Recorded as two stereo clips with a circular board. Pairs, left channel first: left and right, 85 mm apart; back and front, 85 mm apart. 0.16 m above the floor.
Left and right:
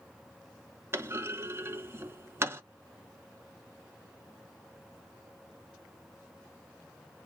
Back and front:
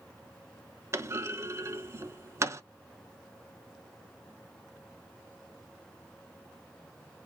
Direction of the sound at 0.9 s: 40° right.